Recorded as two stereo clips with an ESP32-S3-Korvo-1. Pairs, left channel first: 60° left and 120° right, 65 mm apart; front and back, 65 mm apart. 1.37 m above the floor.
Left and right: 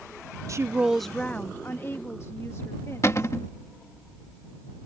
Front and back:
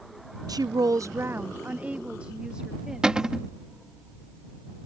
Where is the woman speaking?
160° right; by 3.4 s 100° left.